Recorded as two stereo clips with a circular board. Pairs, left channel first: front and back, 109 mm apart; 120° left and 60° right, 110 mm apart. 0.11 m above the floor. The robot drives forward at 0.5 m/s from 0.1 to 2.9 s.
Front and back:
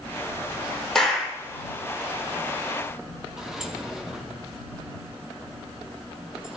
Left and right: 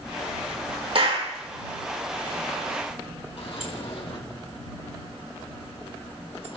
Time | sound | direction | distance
0.9 | a clap | 85° right | 3 m
3.4 | a sliding door | 95° left | 1.7 m